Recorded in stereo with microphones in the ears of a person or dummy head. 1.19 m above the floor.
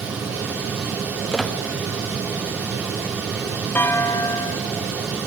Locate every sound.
1.3 s a squeak: 5° left (ahead or behind), 0.9 m
3.8 s a clunk: 10° left (ahead or behind), 1.1 m